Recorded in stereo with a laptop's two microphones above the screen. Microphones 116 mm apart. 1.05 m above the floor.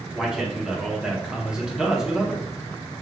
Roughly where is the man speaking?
Centre.